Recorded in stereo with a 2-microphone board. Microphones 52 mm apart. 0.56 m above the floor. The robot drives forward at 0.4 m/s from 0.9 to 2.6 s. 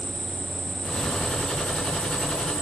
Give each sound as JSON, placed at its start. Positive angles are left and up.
{"t": 0.0, "sound": "an insect", "side_deg": -5, "distance_m": 1.8}